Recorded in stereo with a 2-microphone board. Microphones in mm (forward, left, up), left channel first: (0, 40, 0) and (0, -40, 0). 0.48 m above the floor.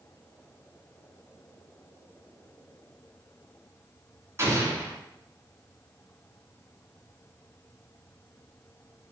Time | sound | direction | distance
4.4 | an explosion | 35° right (ahead or behind) | 1.9 m